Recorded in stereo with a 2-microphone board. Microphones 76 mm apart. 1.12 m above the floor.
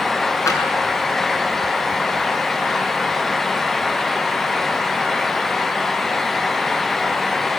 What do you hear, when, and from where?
0.5 s tapping: 40° left (ahead or behind), 8 m